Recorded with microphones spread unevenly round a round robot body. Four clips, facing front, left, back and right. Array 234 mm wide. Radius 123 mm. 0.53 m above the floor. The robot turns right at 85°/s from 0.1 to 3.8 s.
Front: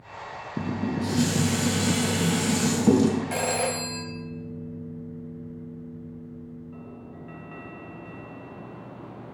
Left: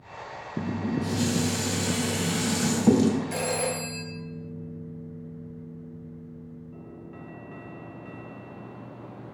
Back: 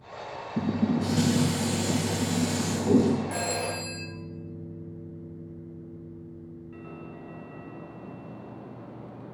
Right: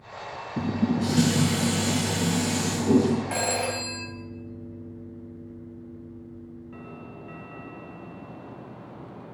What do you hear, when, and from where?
0.6 s dishes clattering: 145° right, 1.8 m; by 3.2 s 80° left, 1.8 m
3.3 s a phone ringing: 50° right, 2 m; by 4.0 s 10° right, 2 m